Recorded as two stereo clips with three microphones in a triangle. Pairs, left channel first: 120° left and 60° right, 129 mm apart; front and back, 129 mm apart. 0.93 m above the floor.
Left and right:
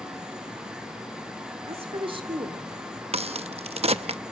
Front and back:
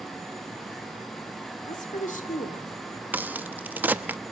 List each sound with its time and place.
1.7 s a woman speaking: 20° right, 3 m; by 2.7 s 5° right, 2.5 m
3.1 s a crack: 105° right, 0.7 m